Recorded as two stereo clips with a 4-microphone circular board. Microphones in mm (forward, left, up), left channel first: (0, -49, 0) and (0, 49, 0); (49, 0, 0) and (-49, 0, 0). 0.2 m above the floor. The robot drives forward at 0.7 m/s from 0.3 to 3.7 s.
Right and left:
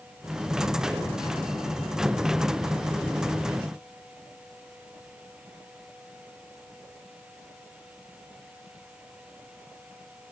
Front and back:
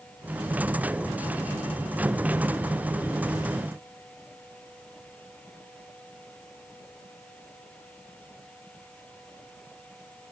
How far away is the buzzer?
I don't hear a buzzer.